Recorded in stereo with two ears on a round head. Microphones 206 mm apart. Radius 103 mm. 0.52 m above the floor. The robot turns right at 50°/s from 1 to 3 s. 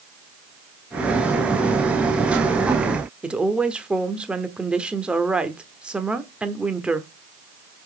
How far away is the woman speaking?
About 1.1 m.